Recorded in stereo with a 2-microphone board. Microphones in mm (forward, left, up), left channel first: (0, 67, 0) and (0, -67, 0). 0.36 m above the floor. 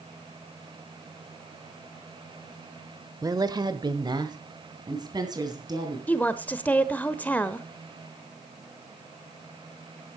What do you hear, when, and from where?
3.2 s a woman speaking: 25° right (ahead or behind), 0.9 m; by 6.0 s 30° right (ahead or behind), 3.5 m
6.1 s a woman speaking: 10° left (ahead or behind), 0.9 m